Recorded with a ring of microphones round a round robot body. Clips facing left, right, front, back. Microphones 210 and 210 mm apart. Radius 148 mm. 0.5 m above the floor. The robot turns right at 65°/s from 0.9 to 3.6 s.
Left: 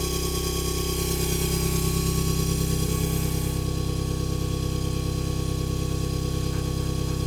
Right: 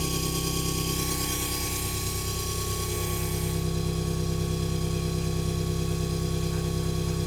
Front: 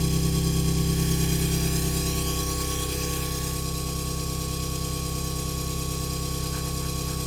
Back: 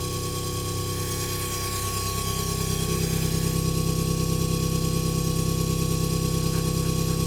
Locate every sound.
0.0 s an engine running: 10° left, 8.5 m; by 7.3 s 175° right, 8.5 m